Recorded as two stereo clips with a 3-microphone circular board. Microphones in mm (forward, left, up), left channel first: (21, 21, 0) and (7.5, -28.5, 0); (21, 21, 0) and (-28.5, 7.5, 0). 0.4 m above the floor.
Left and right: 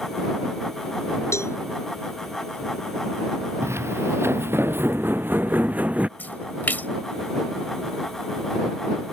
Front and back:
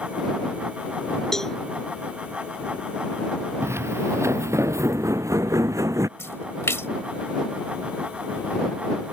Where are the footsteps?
135° right; by 6.1 s 170° right.